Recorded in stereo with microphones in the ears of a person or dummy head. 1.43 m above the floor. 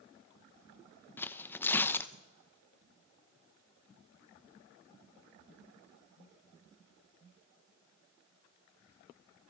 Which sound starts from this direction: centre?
Tearing paper, at 1.2 s.